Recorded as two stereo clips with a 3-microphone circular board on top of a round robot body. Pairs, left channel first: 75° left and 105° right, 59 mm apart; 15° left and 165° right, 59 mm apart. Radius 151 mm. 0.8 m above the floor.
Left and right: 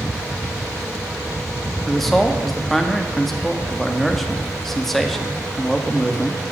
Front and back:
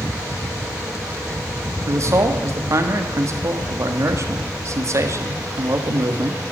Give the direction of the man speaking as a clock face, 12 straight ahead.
7 o'clock.